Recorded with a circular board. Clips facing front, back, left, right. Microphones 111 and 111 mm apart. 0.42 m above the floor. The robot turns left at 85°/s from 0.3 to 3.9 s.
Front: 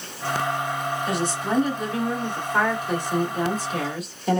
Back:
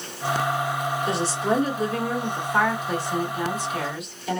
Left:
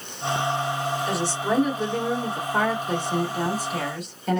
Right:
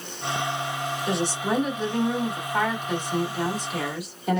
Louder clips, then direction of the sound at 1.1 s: Back 2 dB, right 2 dB; 130° right.